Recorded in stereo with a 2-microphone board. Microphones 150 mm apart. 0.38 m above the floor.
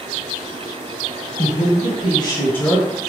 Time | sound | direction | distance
1.4 | a woman speaking | 55° left (ahead or behind) | 1.8 m